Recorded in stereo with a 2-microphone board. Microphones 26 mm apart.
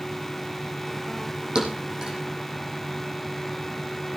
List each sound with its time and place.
1.6 s a thud: 30° right (ahead or behind), 5.5 m